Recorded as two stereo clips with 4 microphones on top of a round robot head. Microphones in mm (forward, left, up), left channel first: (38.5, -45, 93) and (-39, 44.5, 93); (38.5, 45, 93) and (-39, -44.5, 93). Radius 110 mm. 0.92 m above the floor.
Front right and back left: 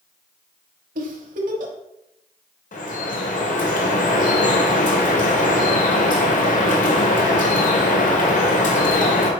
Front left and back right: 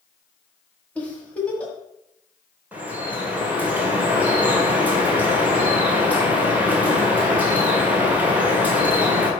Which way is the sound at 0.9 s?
130° left.